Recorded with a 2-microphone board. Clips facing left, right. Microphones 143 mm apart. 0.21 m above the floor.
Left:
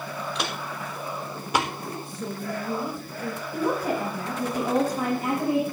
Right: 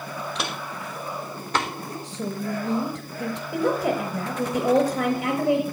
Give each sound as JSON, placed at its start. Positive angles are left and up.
{"t": 0.3, "sound": "footsteps", "side_deg": 0, "distance_m": 3.5}
{"t": 2.0, "sound": "a woman speaking", "side_deg": -70, "distance_m": 3.5}
{"t": 3.5, "sound": "a woman speaking", "side_deg": -65, "distance_m": 5.0}